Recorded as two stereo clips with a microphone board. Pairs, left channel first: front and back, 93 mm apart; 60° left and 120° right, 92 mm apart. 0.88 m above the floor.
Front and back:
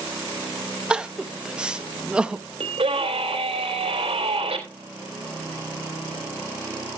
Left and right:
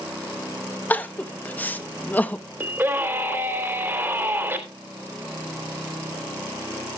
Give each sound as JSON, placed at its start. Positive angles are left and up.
{"t": 0.9, "sound": "crying", "azimuth_deg": 110, "distance_m": 0.7}
{"t": 2.6, "sound": "a scream", "azimuth_deg": 175, "distance_m": 3.0}